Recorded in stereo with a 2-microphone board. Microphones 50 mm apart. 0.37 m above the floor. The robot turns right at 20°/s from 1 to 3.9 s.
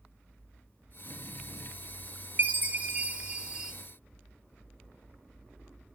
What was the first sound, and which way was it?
A chime, 35° right (ahead or behind).